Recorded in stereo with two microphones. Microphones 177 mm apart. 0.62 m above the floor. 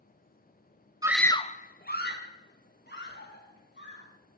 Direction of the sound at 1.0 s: 20° right (ahead or behind).